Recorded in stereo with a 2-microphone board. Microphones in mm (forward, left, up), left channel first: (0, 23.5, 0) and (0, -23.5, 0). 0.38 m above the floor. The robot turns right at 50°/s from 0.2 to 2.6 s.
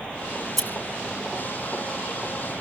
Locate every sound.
0.4 s scissors: 20° left (ahead or behind), 2 m; by 0.7 s 5° left (ahead or behind), 2 m